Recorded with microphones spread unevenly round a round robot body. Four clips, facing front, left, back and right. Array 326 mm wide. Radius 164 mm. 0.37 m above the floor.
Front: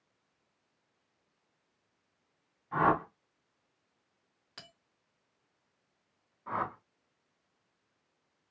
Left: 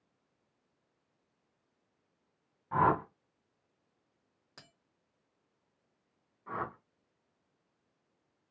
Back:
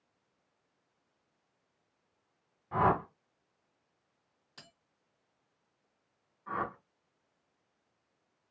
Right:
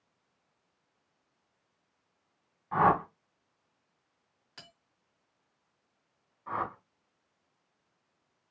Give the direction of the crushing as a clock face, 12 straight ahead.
I don't hear crushing.